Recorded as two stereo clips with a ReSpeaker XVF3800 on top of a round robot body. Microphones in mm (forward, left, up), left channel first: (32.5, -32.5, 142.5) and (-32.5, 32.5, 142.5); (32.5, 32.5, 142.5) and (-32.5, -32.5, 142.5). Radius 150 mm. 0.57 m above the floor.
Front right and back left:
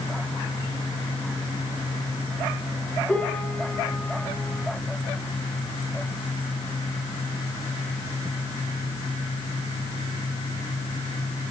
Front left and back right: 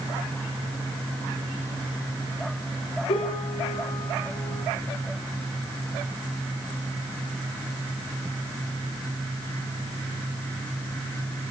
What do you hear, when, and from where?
3.1 s a piano: 30° left, 6.5 m